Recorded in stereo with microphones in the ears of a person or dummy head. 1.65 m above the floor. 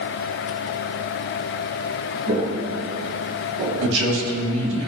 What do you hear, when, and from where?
2.3 s footsteps: 30° right (ahead or behind), 2.5 m; by 3.9 s 20° right (ahead or behind), 3 m
3.8 s a man speaking: 80° right, 2.5 m